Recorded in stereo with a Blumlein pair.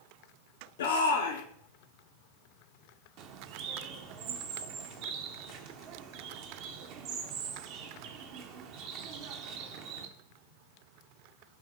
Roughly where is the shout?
Ahead left.